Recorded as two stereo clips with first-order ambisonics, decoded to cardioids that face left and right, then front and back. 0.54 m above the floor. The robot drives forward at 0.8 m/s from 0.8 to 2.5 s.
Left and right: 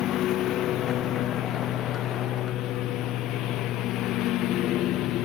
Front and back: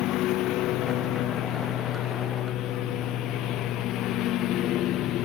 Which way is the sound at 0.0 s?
40° left.